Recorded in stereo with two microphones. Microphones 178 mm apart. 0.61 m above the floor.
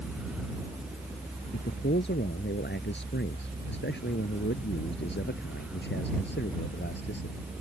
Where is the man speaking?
85° left; by 7.4 s 80° left.